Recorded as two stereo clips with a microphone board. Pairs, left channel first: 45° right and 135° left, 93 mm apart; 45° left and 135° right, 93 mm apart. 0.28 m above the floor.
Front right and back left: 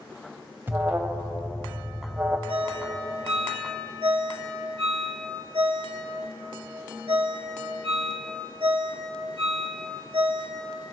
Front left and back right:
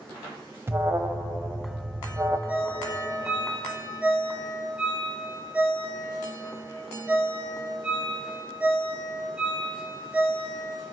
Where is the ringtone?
150° left, 2.5 m.